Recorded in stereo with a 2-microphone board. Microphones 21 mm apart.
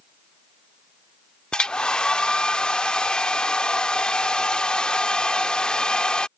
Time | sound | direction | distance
1.5 | a hair dryer | 45° left (ahead or behind) | ?